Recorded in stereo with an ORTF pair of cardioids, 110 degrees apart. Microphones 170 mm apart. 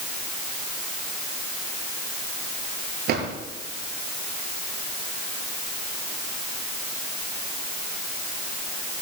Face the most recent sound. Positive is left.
turn(degrees=-70)